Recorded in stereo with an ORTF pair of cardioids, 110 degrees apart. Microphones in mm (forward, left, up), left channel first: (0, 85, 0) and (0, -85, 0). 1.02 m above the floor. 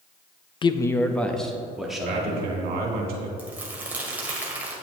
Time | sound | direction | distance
0.6 | a man speaking | 30° left | 0.5 m
2.0 | a man speaking | 65° right | 2 m
3.4 | crumpling | 10° right | 2.0 m